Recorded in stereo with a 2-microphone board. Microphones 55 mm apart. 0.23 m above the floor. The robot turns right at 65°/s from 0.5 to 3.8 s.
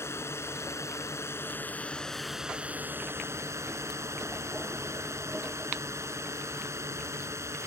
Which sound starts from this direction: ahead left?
A drone, at 0.0 s.